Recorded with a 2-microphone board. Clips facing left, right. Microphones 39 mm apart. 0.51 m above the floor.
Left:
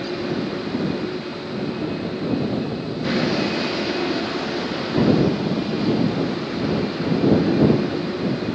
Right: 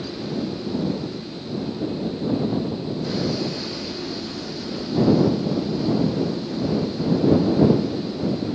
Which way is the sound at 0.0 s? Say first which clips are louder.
Left 3 dB; 55° left (ahead or behind).